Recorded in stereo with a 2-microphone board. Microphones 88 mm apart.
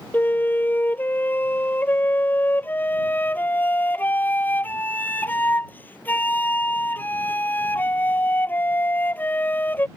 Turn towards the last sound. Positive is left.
turn(degrees=20)  # may be behind; listen again after turning